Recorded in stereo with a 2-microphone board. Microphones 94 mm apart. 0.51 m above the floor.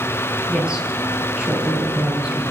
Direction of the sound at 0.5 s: 10° right (ahead or behind).